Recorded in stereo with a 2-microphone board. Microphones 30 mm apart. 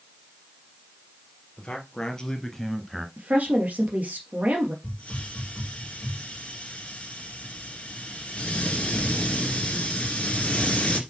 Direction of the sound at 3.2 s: 55° right (ahead or behind).